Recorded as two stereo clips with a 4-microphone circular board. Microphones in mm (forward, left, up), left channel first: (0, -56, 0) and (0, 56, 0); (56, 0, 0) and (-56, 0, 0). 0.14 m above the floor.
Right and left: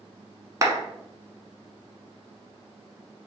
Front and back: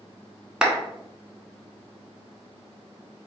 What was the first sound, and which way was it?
A clap, 105° left.